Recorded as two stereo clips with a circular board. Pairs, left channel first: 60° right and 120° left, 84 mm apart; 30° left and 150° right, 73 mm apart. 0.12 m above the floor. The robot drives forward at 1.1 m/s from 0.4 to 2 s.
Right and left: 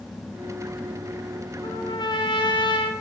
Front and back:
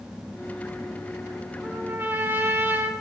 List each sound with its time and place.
1.6 s a trumpet: 80° right, 3 m; by 2.9 s 85° right, 3 m